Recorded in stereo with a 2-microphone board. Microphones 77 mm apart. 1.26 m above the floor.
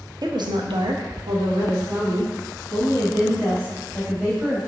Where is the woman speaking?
60° right (ahead or behind), 0.5 m; by 4.7 s 25° right (ahead or behind), 2.5 m.